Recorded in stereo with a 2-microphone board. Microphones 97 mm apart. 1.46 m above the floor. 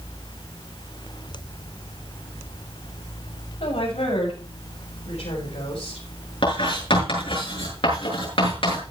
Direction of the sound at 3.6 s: 90° left.